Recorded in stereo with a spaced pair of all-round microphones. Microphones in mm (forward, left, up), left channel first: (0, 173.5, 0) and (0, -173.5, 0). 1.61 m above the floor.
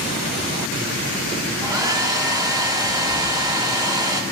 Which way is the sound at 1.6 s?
10° right (ahead or behind).